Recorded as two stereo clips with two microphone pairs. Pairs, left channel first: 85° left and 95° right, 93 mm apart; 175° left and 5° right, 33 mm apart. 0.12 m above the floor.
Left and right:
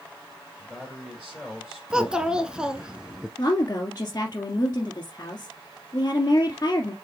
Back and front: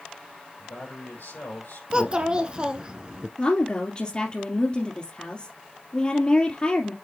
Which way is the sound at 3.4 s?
130° left.